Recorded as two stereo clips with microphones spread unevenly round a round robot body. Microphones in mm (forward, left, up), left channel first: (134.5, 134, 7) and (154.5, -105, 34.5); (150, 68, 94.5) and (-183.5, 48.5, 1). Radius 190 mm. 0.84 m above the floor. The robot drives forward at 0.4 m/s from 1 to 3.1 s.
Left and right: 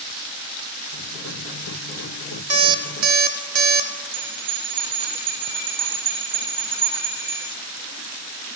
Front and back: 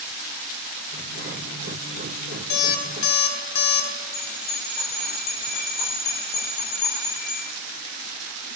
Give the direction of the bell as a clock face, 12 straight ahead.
3 o'clock.